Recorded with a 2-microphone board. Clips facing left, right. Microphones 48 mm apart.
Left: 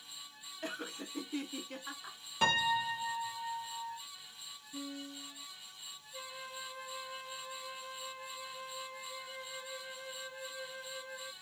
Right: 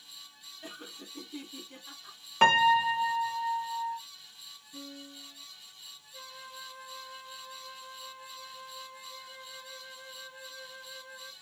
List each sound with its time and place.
0.6 s laughter: 60° left (ahead or behind), 1.2 m
2.4 s a piano: 45° right (ahead or behind), 0.5 m
4.7 s a piano: 15° left (ahead or behind), 2 m
6.1 s a flute: 30° left (ahead or behind), 0.8 m